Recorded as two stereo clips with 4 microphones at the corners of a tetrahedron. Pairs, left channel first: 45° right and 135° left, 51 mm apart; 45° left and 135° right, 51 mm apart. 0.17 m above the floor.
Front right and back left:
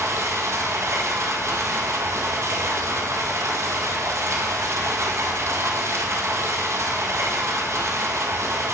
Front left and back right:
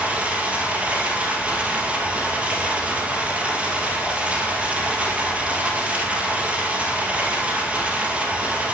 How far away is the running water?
About 2 m.